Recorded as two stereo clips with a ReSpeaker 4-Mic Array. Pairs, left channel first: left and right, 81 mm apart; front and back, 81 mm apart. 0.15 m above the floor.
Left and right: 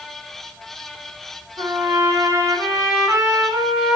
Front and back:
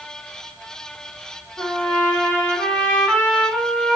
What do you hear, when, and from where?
1.6 s a trumpet: 65° right, 0.8 m